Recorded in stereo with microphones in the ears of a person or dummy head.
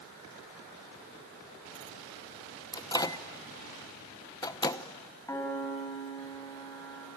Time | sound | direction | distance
2.7 | a microwave | 20° left (ahead or behind) | 0.8 m
5.3 | a piano | 15° left (ahead or behind) | 3.5 m